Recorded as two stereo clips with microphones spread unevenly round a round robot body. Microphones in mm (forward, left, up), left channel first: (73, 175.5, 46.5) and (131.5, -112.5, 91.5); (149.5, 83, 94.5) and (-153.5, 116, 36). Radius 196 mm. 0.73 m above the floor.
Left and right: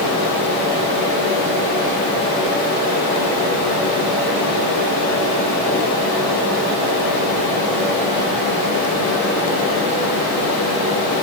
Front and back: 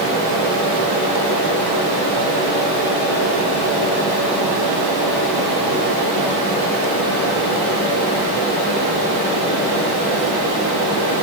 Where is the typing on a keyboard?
I don't hear typing on a keyboard.